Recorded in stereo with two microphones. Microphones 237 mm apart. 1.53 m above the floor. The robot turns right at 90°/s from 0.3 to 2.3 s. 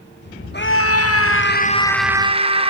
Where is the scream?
45° left, 1.6 m; by 2.7 s 155° right, 1.6 m.